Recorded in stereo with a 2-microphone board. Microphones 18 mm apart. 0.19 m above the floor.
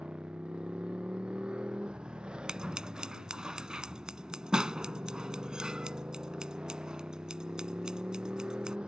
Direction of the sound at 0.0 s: 55° right (ahead or behind).